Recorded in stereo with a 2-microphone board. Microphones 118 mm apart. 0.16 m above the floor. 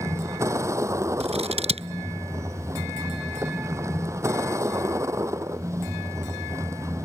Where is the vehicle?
25° right (ahead or behind).